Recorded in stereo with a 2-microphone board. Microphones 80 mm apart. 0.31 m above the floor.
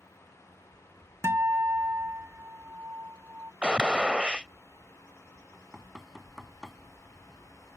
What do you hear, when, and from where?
1.2 s a guitar: 35° right (ahead or behind)
3.6 s a gunshot: 15° right (ahead or behind)
5.5 s knocking: 5° right (ahead or behind)